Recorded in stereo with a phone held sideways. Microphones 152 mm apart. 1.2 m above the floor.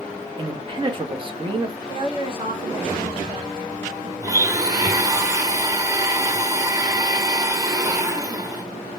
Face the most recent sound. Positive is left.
turn(degrees=-25)  # may be behind; listen again after turning